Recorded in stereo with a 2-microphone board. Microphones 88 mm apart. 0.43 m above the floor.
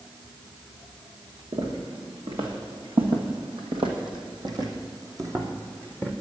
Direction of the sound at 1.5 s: 75° right (ahead or behind).